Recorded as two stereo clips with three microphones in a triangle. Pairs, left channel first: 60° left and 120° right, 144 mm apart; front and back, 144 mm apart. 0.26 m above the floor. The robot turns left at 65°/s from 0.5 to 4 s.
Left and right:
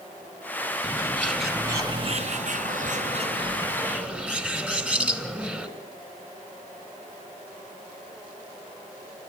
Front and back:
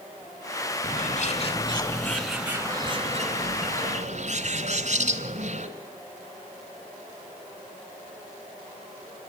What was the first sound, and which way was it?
A bird, 5° left.